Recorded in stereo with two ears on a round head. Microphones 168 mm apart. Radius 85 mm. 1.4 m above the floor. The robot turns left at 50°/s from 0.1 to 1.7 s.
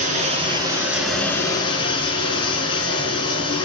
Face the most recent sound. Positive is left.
turn(degrees=150)